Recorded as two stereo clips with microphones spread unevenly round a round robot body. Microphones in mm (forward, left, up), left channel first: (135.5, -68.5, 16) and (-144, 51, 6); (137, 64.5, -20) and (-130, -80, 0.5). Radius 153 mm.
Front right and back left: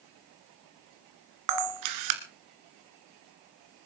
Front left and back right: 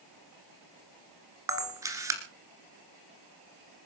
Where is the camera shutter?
125° left, 2 m.